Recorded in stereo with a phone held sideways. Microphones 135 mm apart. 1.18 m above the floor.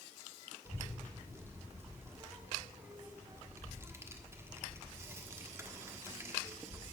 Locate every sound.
0.7 s a child speaking: 20° right (ahead or behind), 1.3 m